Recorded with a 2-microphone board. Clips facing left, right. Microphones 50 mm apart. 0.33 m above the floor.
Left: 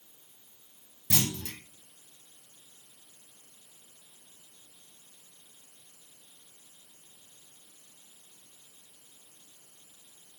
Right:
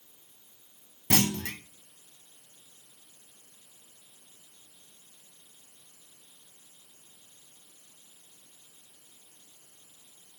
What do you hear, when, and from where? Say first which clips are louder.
1.1 s a clunk: right 5 dB; 65° right (ahead or behind), 1.2 m